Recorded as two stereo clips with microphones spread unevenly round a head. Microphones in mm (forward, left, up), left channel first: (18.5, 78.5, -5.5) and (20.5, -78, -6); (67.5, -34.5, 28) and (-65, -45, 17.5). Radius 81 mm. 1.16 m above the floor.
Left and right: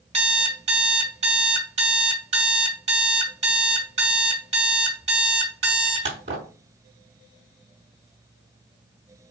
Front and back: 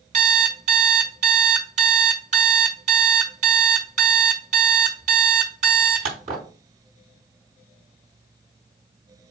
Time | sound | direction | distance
0.1 | an alarm clock | 140° right | 4 m